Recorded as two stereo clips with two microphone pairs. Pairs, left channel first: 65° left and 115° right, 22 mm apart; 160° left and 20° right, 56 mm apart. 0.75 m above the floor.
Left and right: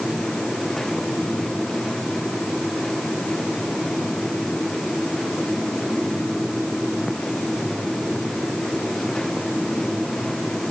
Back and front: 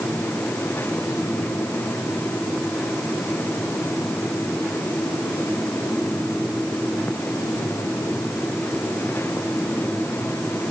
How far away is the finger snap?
No finger snap in this recording.